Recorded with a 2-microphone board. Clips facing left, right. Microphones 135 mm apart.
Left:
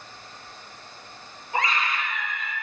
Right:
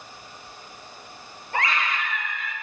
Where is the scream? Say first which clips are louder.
Even; 65° right (ahead or behind), 3 m.